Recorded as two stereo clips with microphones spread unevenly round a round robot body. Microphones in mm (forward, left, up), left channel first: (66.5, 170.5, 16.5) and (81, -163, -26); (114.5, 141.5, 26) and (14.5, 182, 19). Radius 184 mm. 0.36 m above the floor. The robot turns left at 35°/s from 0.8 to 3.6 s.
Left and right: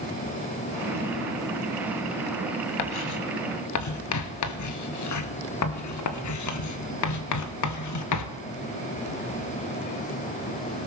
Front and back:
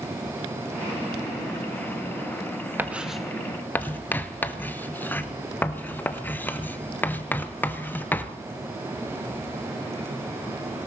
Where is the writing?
80° left, 1.3 m; by 8.4 s 55° left, 1.3 m.